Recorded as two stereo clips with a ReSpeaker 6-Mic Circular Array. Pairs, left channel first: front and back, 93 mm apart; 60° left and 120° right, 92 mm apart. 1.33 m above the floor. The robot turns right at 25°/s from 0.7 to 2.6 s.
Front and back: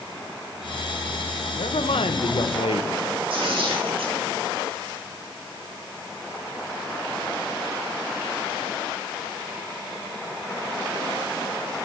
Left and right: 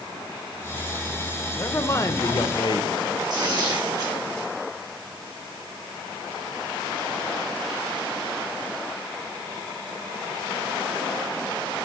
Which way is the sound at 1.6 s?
5° right.